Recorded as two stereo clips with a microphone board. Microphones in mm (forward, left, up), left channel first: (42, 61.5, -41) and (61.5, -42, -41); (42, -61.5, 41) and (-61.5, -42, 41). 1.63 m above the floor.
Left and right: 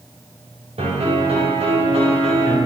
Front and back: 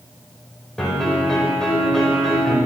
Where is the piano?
95° right, 8 m.